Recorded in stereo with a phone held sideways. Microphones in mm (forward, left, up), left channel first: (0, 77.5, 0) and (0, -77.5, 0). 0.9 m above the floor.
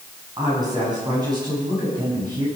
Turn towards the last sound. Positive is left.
turn(degrees=-30)  # may be behind; listen again after turning